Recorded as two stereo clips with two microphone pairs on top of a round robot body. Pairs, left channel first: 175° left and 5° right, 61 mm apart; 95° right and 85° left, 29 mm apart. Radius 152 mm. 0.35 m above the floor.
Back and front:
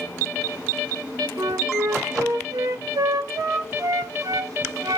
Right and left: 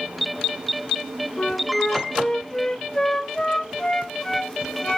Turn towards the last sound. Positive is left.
turn(degrees=-35)